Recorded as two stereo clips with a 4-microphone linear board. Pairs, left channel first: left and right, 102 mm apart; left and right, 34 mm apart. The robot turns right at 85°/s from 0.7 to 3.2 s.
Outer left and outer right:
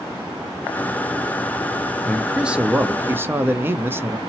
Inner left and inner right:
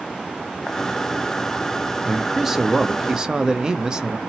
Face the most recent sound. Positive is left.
turn(degrees=-20)  # may be behind; listen again after turning